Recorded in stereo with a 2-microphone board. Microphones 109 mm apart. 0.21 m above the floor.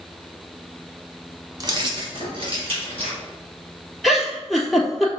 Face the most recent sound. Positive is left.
turn(degrees=0)  # may be behind; listen again after turning